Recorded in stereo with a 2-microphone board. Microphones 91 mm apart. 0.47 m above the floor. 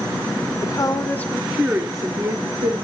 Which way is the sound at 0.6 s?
45° left (ahead or behind).